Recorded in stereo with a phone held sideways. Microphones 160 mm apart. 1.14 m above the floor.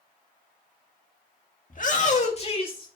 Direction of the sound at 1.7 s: 55° left (ahead or behind).